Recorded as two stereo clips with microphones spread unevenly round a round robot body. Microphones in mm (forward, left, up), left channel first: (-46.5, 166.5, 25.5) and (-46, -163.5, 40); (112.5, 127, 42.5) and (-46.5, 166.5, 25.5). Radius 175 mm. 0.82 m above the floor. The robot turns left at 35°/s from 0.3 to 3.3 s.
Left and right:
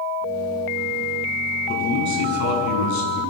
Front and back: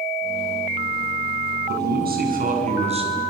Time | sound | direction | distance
1.7 | a man speaking | 160° left | 7 m